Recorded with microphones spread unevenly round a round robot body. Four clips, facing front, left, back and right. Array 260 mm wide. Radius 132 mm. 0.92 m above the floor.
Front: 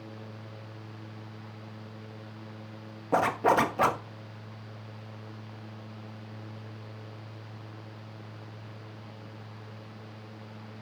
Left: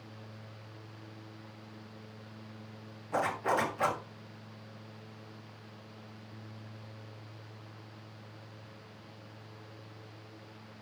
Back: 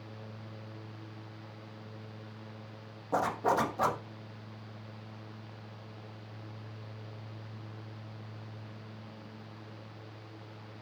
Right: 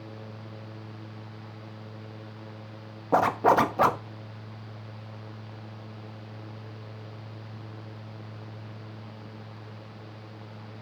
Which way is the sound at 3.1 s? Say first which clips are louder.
Right 10 dB, front 5 dB; 65° right.